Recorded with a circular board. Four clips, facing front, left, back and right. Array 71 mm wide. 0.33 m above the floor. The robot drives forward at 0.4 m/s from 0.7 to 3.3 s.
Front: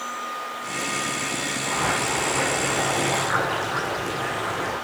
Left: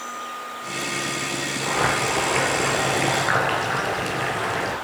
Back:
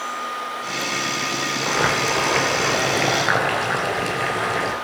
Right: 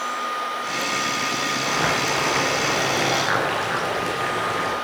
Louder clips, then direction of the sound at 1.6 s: Left 2 dB, back 4 dB; 165° right.